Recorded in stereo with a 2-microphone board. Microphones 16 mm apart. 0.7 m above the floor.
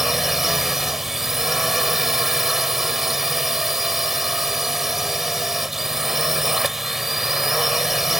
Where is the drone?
20° right (ahead or behind).